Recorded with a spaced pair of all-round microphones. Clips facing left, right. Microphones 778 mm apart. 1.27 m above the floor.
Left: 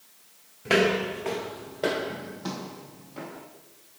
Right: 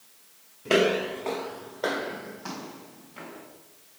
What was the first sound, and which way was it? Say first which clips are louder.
Footsteps: right 1 dB; 25° left (ahead or behind).